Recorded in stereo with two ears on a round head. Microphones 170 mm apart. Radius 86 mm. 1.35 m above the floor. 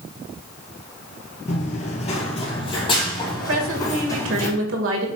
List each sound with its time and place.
1.5 s running footsteps: 35° left (ahead or behind), 1.6 m; by 4.5 s 15° left (ahead or behind), 4 m
3.5 s a woman speaking: 70° right (ahead or behind), 1.9 m